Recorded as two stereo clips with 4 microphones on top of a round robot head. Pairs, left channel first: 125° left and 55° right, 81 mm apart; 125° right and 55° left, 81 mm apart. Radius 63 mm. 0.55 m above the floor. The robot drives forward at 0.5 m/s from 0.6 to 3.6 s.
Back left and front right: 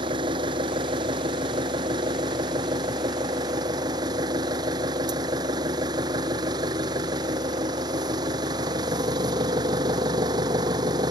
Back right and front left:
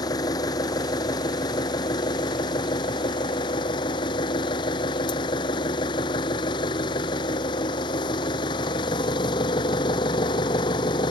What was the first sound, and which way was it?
An engine running, 85° right.